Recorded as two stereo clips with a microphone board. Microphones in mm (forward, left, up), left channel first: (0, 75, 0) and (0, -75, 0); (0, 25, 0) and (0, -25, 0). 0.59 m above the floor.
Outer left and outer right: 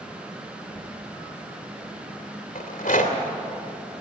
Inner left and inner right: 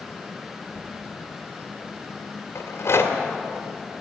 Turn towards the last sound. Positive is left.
turn(degrees=65)  # may be behind; listen again after turning